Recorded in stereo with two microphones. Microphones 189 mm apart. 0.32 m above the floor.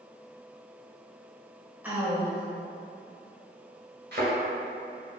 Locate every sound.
1.8 s a woman speaking: 10° right (ahead or behind), 1.1 m
4.1 s a thud: 65° right (ahead or behind), 1.9 m